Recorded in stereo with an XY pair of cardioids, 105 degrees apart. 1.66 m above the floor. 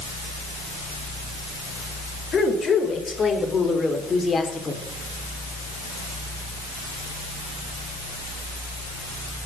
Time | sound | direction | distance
2.3 | a woman speaking | 40° left | 7 m